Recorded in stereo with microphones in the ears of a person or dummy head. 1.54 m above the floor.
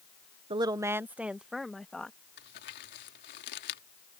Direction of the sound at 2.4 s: 60° left (ahead or behind).